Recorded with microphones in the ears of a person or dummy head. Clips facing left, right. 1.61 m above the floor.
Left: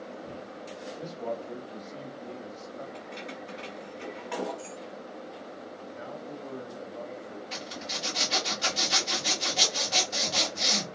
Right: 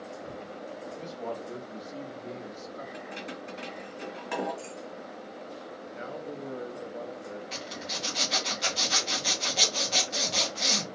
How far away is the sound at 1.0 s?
About 1.4 m.